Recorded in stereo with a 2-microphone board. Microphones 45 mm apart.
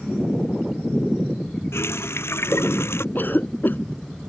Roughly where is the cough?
Left.